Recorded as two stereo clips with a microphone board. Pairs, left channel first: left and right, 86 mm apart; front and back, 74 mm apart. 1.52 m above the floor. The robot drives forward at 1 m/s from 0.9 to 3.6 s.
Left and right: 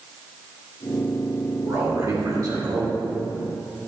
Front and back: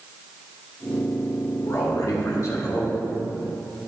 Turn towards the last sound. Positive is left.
turn(degrees=-80)